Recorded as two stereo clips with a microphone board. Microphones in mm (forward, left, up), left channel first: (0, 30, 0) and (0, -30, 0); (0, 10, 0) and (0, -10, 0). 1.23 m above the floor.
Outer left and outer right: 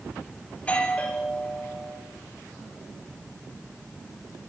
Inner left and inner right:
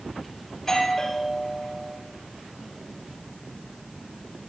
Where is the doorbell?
20° left (ahead or behind), 8 m.